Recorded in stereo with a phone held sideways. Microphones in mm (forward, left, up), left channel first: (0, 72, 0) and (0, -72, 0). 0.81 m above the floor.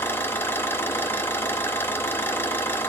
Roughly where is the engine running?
Centre.